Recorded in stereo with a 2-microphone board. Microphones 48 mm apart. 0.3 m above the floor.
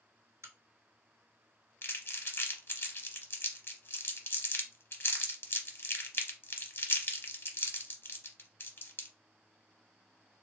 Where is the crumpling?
50° left (ahead or behind), 0.7 m.